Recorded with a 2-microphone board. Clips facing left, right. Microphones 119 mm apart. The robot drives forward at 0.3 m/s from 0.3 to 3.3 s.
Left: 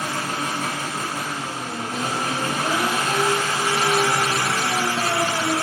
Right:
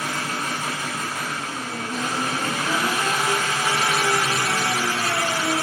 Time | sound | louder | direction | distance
0.0 | an engine running | left 1 dB | 60° left (ahead or behind) | 5.5 m